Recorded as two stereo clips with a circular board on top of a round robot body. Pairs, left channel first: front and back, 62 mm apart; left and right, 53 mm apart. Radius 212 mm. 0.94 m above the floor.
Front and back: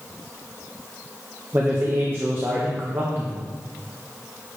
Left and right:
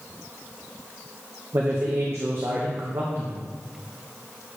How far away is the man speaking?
About 1.2 m.